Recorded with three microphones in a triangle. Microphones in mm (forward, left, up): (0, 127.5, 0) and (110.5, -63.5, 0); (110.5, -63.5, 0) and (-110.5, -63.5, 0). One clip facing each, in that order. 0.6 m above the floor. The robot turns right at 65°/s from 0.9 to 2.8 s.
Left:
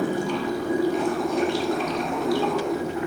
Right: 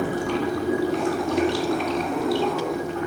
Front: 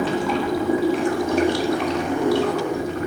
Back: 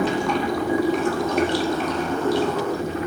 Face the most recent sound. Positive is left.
turn(degrees=35)